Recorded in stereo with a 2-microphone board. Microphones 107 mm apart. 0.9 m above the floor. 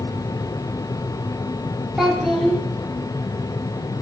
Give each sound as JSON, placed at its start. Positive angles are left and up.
{"t": 2.0, "sound": "a child speaking", "side_deg": 0, "distance_m": 1.7}